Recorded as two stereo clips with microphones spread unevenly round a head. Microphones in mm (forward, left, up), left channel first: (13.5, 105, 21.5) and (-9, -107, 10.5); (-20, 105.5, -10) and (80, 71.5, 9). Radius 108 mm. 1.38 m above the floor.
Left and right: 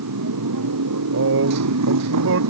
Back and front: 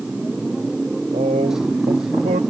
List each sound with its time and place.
0.0 s a motorcycle: 105° right
1.1 s a man speaking: 65° right